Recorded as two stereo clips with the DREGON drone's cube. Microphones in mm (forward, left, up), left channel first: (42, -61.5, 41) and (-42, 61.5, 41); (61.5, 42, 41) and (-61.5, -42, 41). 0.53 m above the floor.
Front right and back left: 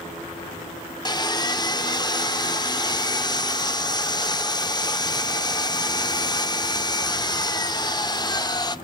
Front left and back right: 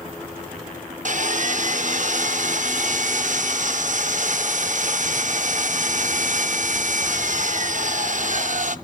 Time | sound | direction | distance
1.1 | sawing | 115° right | 0.6 m